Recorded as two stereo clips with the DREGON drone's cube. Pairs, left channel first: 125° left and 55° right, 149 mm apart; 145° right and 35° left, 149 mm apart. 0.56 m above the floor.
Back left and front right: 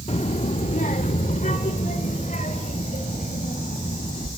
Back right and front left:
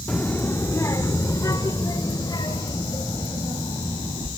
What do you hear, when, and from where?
0.1 s a child speaking: 135° left, 0.9 m; by 4.3 s 155° left, 3.5 m